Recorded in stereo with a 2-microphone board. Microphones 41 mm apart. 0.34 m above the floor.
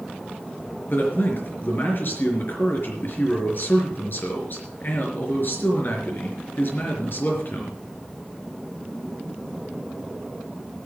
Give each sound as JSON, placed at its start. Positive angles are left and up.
{"t": 0.9, "sound": "a man speaking", "side_deg": 55, "distance_m": 4.5}